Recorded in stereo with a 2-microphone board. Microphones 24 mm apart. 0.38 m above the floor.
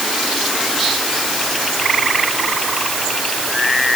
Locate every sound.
Only background noise.